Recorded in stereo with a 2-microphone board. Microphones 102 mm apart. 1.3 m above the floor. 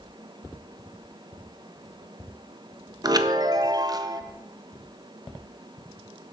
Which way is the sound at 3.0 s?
40° right (ahead or behind).